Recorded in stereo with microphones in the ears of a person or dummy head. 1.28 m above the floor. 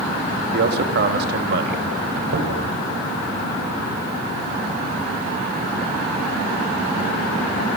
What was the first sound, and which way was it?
A man speaking, 60° right (ahead or behind).